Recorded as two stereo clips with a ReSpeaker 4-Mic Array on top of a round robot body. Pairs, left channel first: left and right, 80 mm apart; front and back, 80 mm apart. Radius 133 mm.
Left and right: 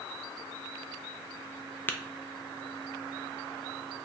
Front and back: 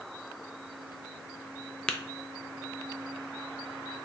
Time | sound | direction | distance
1.9 | tapping | 65° left | 0.6 m